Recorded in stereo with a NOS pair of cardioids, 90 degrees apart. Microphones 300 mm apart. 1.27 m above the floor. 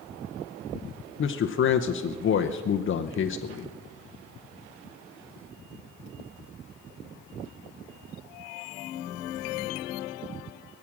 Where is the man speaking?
40° left, 0.7 m.